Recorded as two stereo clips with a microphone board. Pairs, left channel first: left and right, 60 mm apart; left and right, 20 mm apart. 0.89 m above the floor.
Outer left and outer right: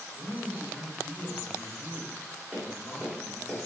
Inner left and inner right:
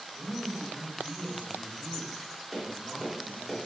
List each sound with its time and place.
0.1 s a man speaking: 10° left (ahead or behind), 1.7 m
2.5 s tapping: 5° right (ahead or behind), 1.7 m